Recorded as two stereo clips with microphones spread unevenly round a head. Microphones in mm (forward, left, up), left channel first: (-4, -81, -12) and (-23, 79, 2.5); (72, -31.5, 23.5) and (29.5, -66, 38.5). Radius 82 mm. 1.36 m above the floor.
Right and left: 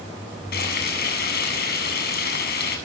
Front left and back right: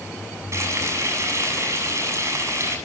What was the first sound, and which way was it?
Frying, 115° right.